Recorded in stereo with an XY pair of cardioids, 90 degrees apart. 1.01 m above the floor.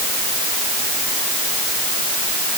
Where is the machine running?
No machine running in this recording.